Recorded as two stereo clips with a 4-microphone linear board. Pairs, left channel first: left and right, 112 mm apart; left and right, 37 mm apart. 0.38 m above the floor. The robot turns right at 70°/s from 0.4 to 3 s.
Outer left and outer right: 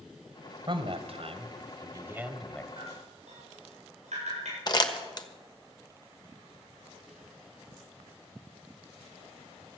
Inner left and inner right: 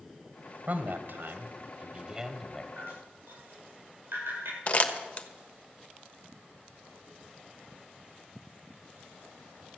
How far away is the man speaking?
About 1.5 m.